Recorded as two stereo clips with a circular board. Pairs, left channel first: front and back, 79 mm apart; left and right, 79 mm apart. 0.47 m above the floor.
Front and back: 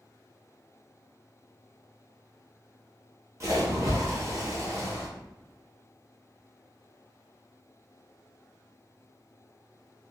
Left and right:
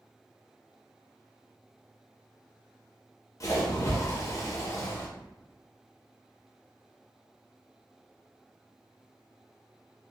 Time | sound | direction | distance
3.4 | a splash | 135° left | 0.7 m